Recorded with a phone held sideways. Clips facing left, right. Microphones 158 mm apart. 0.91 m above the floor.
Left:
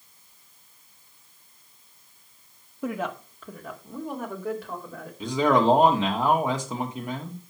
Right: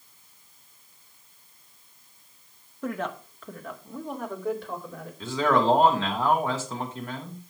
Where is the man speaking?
15° left (ahead or behind), 2 m.